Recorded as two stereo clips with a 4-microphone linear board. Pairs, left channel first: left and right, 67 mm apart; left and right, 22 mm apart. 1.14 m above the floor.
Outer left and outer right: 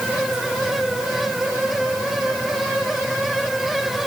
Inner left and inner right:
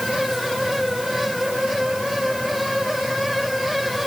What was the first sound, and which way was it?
Only background noise.